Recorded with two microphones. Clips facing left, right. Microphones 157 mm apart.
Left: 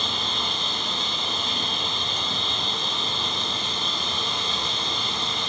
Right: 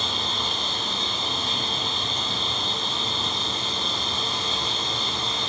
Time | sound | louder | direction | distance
0.0 | an insect | even | 25° right (ahead or behind) | 1.1 m